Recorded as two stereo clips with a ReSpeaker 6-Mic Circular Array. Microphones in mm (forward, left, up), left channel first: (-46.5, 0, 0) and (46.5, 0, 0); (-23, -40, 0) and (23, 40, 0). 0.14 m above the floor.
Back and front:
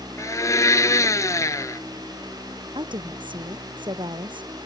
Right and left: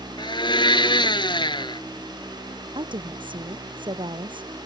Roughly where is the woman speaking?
Ahead left.